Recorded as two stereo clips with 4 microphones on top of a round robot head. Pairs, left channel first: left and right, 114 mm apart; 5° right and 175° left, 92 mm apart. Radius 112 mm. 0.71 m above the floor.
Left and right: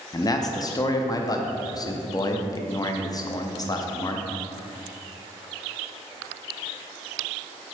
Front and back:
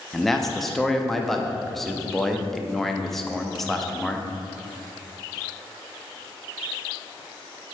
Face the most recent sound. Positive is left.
turn(degrees=80)